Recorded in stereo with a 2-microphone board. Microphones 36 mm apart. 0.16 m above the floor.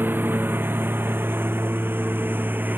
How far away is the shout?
I don't hear a shout.